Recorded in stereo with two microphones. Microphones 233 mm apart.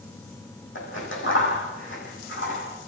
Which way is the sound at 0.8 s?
55° left (ahead or behind).